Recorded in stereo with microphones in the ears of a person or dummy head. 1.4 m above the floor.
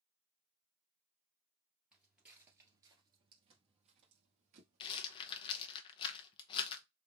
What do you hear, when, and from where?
1.9 s footsteps: centre (ahead or behind), 1.6 m; by 5.7 s 50° right (ahead or behind), 2 m
4.8 s a rattle: 35° left (ahead or behind), 0.8 m